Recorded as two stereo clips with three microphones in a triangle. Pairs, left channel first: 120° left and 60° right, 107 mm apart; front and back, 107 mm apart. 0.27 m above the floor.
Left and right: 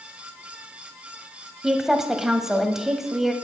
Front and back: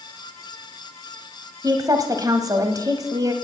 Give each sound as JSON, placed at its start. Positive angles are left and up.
{"t": 1.6, "sound": "a woman speaking", "azimuth_deg": -145, "distance_m": 1.4}